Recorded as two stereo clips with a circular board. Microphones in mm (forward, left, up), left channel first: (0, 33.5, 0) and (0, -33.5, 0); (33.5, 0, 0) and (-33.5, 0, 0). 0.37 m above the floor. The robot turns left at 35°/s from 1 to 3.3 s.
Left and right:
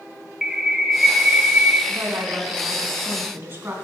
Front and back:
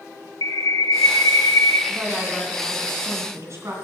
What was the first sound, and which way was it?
A bird, 5° right.